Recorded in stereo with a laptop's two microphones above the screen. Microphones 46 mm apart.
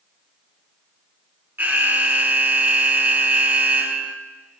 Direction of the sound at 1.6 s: 40° right (ahead or behind).